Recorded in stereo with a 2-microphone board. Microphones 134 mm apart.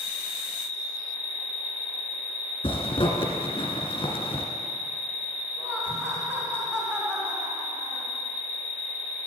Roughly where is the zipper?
Left.